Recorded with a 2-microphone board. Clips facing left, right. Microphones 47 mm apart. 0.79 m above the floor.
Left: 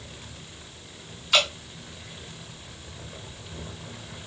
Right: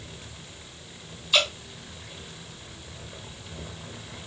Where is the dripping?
75° left (ahead or behind), 1.3 m.